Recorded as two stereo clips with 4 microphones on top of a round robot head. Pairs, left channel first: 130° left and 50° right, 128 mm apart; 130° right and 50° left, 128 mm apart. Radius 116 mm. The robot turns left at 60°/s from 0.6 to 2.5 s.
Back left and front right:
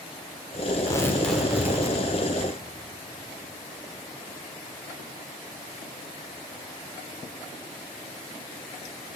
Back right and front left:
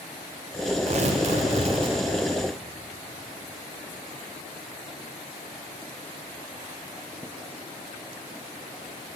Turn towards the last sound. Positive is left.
turn(degrees=-25)